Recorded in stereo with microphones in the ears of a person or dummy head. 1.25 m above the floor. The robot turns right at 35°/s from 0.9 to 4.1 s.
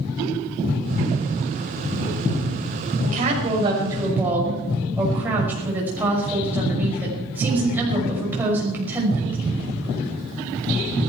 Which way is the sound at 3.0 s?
50° right.